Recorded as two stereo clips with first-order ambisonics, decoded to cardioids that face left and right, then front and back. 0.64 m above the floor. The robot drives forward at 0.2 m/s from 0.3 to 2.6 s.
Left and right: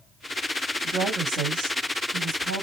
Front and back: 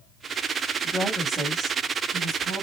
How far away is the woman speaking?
About 1.6 m.